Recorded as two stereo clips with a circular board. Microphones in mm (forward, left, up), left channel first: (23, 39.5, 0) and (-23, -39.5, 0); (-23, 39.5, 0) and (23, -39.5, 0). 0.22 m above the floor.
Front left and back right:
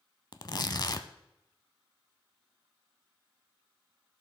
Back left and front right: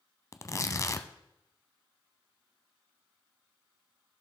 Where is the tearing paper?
75° left, 0.6 m.